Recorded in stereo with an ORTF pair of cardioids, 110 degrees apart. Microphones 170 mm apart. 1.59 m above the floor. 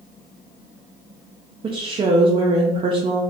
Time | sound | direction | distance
1.6 | a woman speaking | 35° right | 0.5 m